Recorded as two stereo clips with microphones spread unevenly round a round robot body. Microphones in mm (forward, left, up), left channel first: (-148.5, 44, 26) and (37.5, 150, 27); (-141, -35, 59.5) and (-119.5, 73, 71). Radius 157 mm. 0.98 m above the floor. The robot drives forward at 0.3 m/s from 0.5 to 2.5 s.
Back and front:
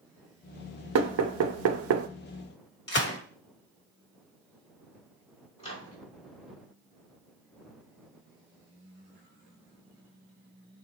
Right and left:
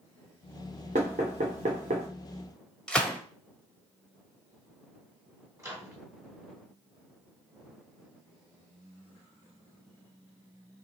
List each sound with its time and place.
0.9 s knocking: 25° left, 0.7 m; by 2.1 s 45° left, 0.5 m
2.9 s a gunshot: straight behind, 1.6 m
5.6 s a microwave: 145° left, 1.9 m